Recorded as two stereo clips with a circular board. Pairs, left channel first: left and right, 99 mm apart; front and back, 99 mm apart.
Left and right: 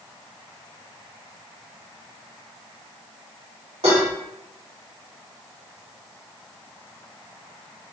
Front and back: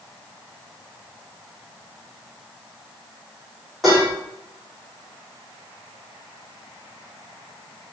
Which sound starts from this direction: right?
Dishes clattering, at 3.8 s.